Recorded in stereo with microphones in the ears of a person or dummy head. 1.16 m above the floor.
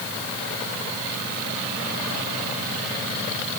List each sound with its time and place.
Only background noise.